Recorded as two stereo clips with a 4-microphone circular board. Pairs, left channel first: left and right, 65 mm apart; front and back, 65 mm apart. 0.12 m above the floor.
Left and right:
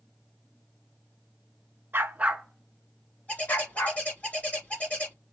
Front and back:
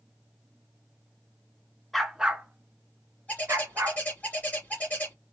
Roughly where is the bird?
Ahead left.